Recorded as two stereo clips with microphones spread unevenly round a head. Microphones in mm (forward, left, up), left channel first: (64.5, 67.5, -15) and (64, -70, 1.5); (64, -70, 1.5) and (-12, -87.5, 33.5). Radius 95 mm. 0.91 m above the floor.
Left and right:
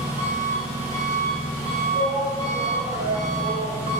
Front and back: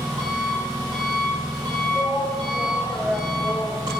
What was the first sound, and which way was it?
An engine running, 135° right.